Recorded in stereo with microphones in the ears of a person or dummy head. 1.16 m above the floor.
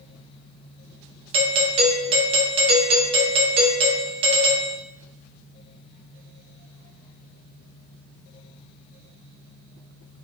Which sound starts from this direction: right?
A doorbell, at 1.3 s.